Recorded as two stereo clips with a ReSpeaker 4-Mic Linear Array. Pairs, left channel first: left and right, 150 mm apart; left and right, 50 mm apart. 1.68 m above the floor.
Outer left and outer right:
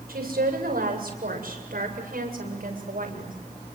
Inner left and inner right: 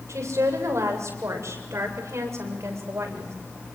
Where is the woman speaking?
80° right, 7.5 m; by 3.4 s 65° right (ahead or behind), 7.5 m.